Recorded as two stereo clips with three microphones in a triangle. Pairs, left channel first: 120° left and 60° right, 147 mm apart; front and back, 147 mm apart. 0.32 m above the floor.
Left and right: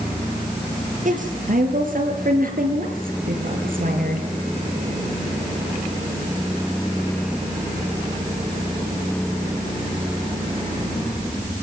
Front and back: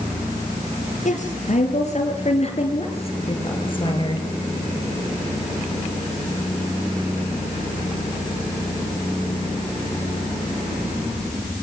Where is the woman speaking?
35° right, 6.5 m; by 4.3 s 60° right, 6 m.